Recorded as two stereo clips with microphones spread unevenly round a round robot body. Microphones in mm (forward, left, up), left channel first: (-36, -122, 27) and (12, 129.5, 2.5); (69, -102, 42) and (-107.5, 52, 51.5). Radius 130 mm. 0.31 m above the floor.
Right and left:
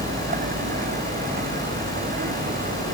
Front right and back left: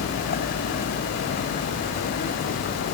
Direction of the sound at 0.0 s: 20° left.